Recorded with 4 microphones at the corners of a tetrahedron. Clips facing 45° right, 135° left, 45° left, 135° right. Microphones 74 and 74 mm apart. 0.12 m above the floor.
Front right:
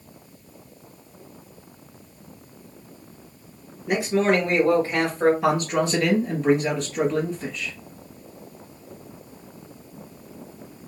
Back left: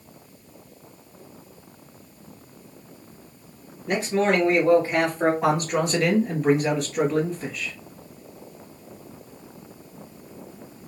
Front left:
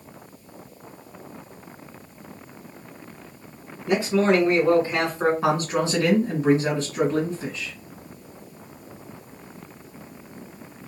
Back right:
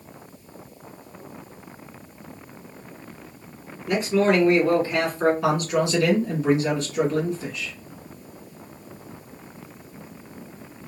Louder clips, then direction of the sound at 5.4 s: Front right 1 dB, even; 50° left.